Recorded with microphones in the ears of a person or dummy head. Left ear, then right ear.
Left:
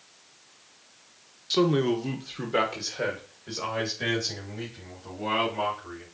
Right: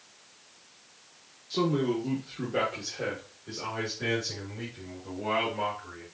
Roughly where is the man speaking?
Left.